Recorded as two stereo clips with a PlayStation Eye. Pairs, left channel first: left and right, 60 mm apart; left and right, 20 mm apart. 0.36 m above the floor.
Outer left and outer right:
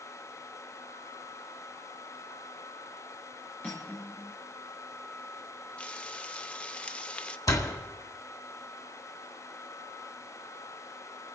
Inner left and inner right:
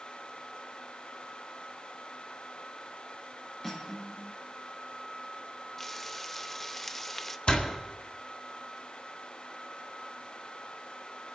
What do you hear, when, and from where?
3.6 s cutlery clinking: 25° left (ahead or behind), 4 m
5.8 s frying: 20° left (ahead or behind), 0.6 m
7.5 s a door slam: 70° left (ahead or behind), 1.8 m